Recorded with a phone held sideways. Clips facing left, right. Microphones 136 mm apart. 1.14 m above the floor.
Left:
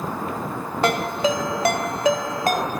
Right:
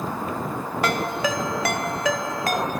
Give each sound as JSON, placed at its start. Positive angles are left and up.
{"t": 0.8, "sound": "a ringtone", "side_deg": 25, "distance_m": 0.7}